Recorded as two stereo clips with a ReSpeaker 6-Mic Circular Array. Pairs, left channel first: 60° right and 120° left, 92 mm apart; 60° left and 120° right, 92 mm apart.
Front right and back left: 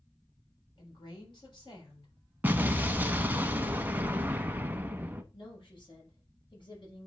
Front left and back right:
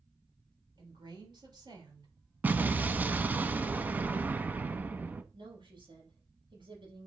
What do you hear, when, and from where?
0.8 s a woman speaking: 90° right, 4 m
2.4 s an explosion: straight behind, 0.6 m
5.3 s a woman speaking: 95° right, 6 m